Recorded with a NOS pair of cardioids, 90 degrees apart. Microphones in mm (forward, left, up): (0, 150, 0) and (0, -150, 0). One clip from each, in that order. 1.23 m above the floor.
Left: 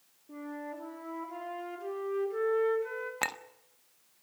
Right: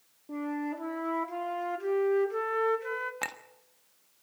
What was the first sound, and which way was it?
A flute, 50° right.